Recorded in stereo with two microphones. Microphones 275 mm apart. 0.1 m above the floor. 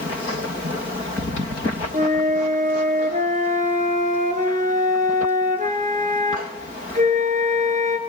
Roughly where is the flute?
Right.